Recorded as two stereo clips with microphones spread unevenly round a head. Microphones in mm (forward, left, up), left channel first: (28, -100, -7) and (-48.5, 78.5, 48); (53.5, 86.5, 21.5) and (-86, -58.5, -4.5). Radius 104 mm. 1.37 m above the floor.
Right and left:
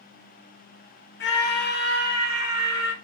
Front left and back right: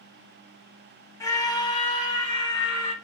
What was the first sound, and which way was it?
A scream, 30° right.